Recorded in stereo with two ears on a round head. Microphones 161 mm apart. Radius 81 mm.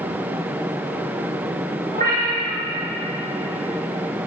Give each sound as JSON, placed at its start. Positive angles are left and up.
{"t": 1.9, "sound": "a cat meowing", "side_deg": -45, "distance_m": 3.5}